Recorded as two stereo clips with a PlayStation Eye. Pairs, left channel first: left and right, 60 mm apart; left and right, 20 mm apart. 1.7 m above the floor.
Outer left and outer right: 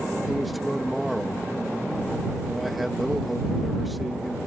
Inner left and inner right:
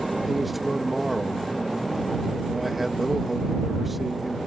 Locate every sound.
0.3 s a man speaking: centre (ahead or behind)